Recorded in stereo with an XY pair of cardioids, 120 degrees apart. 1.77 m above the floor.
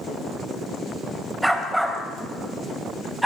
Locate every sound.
1.4 s a dog barking: 5° right, 4 m